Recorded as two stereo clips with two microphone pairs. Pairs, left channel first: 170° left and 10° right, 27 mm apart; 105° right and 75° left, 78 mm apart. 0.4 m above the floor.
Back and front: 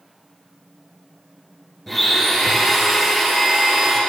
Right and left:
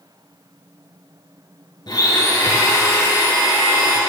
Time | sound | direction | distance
1.9 | a blender | 110° right | 3.5 m